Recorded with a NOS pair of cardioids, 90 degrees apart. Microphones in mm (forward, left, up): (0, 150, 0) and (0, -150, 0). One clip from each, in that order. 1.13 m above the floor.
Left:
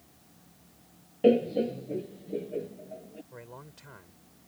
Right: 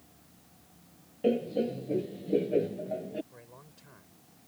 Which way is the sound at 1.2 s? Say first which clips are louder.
Left 5 dB; 25° left.